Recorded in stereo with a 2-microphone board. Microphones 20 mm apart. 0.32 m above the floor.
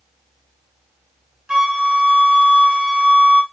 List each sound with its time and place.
1.5 s a flute: 75° right (ahead or behind), 1.3 m